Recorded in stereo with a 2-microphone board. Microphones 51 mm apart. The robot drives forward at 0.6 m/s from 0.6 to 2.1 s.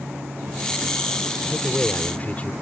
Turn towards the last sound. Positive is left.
turn(degrees=30)  # may be behind; listen again after turning